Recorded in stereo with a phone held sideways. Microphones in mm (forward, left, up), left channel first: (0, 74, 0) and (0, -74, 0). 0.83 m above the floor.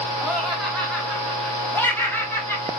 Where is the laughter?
5° right (ahead or behind), 4 m; by 2.7 s 20° left (ahead or behind), 3.5 m.